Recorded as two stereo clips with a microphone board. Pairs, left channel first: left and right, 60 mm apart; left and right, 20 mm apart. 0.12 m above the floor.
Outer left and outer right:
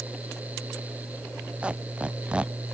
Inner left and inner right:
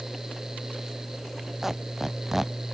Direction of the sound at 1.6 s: 20° right (ahead or behind).